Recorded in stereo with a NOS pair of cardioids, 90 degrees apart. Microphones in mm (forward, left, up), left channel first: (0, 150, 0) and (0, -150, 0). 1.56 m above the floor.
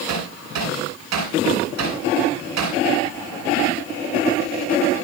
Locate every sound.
0.1 s hammering: 60° right, 9 m